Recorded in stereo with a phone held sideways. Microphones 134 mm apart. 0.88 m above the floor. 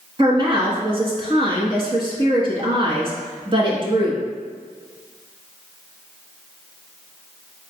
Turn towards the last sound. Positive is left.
turn(degrees=-40)  # may be behind; listen again after turning